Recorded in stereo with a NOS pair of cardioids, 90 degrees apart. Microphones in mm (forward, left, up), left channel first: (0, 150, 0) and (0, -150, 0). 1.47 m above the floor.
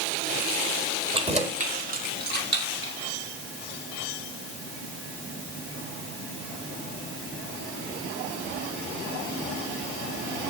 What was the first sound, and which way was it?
Keys jangling, 20° right.